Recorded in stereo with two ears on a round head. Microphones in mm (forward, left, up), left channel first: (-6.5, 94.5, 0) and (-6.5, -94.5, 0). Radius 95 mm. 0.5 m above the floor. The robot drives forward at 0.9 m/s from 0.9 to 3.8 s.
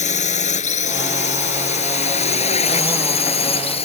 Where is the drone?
35° left (ahead or behind); by 3.9 s 30° left (ahead or behind).